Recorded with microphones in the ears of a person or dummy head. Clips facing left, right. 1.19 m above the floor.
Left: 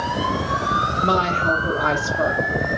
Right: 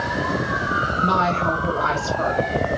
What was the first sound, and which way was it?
A woman speaking, 35° left (ahead or behind).